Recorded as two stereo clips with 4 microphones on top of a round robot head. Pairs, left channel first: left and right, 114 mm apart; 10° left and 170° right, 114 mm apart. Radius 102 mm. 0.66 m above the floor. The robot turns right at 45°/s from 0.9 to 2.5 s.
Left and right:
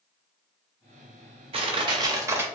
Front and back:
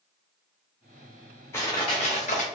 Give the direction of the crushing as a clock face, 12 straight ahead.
2 o'clock.